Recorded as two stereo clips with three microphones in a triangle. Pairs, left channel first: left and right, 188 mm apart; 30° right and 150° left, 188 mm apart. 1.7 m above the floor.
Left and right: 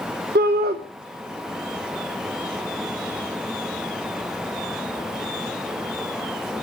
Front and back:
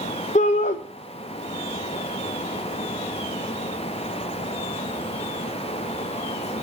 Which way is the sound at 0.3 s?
75° right.